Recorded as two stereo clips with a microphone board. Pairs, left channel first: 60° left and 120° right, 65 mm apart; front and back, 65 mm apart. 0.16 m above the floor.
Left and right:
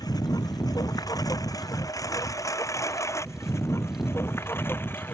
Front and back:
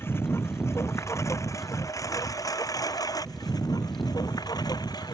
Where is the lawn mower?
50° left; by 5.1 s 5° left.